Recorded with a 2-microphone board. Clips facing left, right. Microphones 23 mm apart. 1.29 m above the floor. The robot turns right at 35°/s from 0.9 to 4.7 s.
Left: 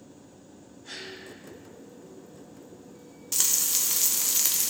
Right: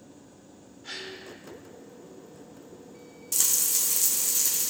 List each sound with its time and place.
0.8 s a gasp: 50° right (ahead or behind), 1.9 m; by 1.2 s 60° right (ahead or behind), 1.9 m
3.3 s frying: 15° left, 1.1 m; by 4.7 s 65° left, 1.1 m